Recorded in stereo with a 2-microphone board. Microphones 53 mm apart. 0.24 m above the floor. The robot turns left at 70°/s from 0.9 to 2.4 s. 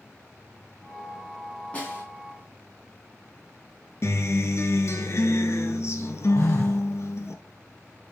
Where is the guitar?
55° left (ahead or behind), 0.9 m.